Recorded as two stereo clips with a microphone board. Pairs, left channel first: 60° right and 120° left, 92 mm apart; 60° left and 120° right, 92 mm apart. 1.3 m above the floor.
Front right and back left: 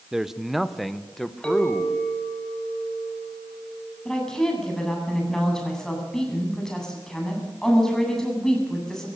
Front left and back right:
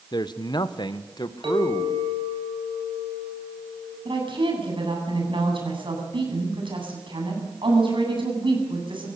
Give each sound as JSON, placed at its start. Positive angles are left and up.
{"t": 0.1, "sound": "a man speaking", "azimuth_deg": 40, "distance_m": 0.9}
{"t": 1.4, "sound": "a clink", "azimuth_deg": -140, "distance_m": 5.5}
{"t": 4.0, "sound": "a woman speaking", "azimuth_deg": -145, "distance_m": 8.5}